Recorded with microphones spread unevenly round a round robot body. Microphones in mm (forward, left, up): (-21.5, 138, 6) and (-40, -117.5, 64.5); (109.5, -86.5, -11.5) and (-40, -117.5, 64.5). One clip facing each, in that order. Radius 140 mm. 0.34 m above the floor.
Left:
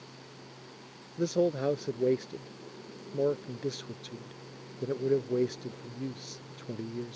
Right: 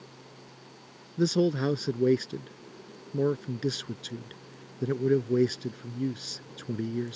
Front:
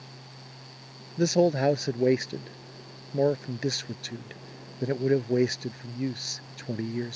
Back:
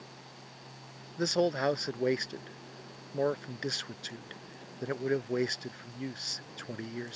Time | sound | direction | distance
1.2 | a man speaking | 35° right | ?